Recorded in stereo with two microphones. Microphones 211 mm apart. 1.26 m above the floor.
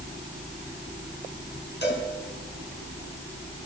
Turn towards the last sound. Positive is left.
turn(degrees=55)  # may be behind; listen again after turning